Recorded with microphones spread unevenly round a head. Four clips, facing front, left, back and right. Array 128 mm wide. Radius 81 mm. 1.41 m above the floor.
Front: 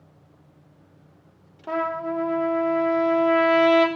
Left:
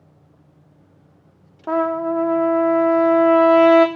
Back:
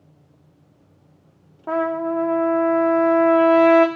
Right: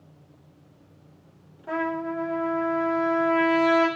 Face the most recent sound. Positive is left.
turn(degrees=115)